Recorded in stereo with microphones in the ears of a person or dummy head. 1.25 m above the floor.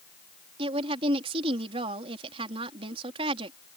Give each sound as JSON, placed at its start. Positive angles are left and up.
{"t": 0.6, "sound": "a woman speaking", "side_deg": -35}